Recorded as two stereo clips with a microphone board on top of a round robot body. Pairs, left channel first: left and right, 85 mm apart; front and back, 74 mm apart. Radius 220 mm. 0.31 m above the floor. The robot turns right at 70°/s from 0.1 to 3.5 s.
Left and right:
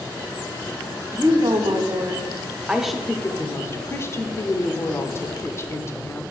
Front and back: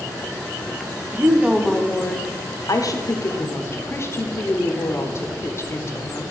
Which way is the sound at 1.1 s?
125° right.